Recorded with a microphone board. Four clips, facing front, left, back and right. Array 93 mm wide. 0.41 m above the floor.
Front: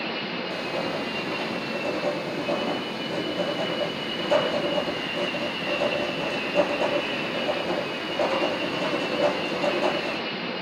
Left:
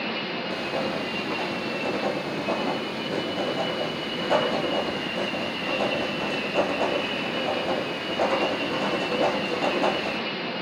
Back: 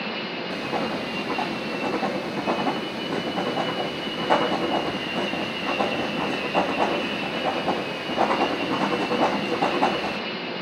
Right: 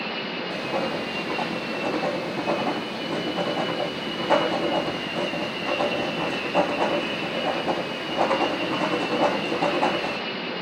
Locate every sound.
0.5 s writing: 155° right, 1.6 m